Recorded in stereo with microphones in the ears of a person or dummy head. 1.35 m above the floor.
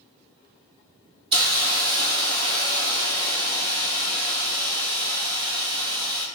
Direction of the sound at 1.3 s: 25° right (ahead or behind).